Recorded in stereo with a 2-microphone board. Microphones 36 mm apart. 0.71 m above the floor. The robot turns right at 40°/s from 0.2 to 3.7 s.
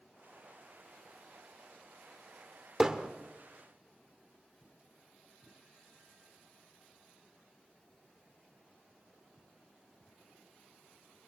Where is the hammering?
10° right (ahead or behind), 2 m; by 3.1 s 20° right (ahead or behind), 2 m.